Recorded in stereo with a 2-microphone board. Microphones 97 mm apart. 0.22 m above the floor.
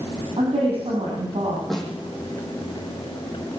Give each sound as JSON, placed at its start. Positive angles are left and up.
{"t": 0.4, "sound": "a woman speaking", "side_deg": -80, "distance_m": 9.5}
{"t": 1.7, "sound": "a snare drum", "side_deg": 5, "distance_m": 7.0}